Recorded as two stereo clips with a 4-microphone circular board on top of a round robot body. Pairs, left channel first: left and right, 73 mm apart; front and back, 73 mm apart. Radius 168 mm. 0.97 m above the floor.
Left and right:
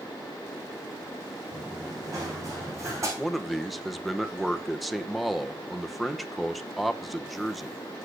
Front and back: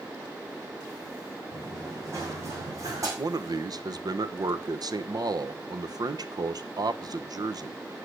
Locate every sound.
1.5 s running footsteps: 130° right, 5.5 m; by 3.1 s 140° right, 4 m
3.2 s a man speaking: straight behind, 1.1 m